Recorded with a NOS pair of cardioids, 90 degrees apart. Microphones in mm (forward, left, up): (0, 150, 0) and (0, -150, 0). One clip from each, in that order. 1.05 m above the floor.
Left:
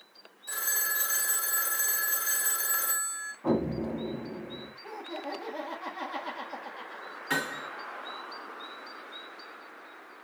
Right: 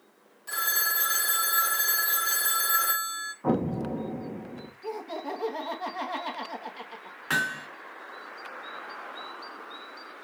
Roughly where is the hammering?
Ahead right.